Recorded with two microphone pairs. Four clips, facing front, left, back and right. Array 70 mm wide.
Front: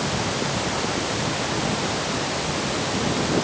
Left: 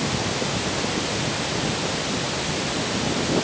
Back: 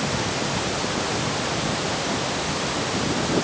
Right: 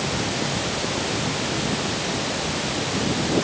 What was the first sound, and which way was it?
Only background noise.